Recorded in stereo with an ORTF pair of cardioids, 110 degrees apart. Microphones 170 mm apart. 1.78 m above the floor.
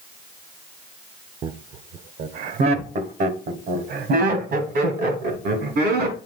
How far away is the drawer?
I don't hear a drawer.